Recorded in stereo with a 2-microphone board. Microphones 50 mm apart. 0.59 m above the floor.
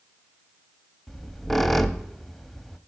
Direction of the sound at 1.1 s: 5° left (ahead or behind).